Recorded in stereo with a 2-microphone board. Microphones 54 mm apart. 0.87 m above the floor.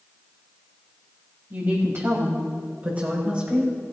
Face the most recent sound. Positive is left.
turn(degrees=-20)  # may be behind; listen again after turning